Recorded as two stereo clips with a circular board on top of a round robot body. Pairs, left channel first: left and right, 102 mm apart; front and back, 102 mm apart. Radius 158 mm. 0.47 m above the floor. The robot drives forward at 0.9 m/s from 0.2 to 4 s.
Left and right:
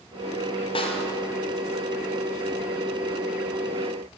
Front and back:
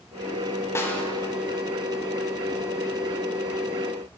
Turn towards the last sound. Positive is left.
turn(degrees=160)